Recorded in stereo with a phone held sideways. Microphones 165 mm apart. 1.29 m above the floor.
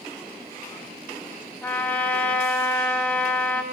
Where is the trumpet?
10° left (ahead or behind), 1.8 m.